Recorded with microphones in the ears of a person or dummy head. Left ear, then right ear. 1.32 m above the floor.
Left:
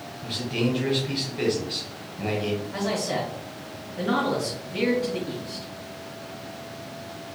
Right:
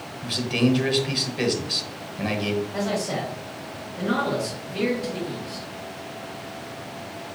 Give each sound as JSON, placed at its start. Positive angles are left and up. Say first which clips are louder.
{"t": 0.2, "sound": "a man speaking", "louder": "right 4 dB", "side_deg": -25, "distance_m": 0.9}
{"t": 2.7, "sound": "a man speaking", "louder": "even", "side_deg": 50, "distance_m": 2.0}